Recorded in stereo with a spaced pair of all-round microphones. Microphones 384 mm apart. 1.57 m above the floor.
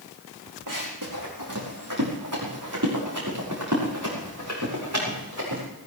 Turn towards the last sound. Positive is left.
turn(degrees=-45)  # may be behind; listen again after turning